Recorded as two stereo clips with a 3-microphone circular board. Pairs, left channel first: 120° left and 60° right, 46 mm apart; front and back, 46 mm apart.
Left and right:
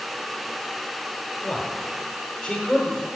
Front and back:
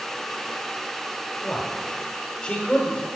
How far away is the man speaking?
About 1.5 m.